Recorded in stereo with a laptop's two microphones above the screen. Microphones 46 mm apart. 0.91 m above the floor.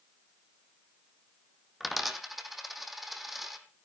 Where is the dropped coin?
5° right (ahead or behind), 2 m.